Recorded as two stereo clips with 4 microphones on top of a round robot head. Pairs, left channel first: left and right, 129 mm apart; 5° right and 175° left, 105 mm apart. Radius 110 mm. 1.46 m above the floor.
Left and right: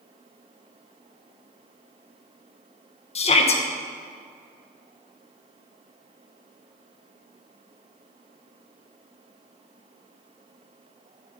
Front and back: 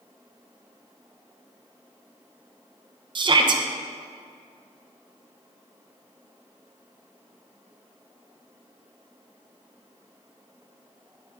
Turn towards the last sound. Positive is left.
turn(degrees=130)